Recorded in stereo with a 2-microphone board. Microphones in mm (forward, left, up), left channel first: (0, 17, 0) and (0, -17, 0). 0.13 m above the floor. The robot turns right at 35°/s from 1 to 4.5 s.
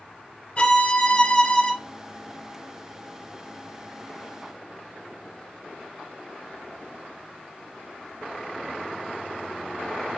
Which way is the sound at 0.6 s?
35° left (ahead or behind).